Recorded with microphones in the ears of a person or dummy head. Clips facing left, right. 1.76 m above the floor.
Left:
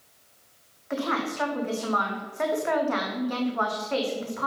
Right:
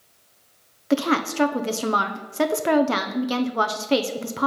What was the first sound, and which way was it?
A woman speaking, 55° right (ahead or behind).